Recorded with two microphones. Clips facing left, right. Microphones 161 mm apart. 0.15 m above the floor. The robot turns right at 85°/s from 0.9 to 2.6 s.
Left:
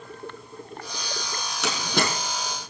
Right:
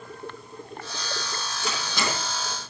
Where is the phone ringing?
No phone ringing in this recording.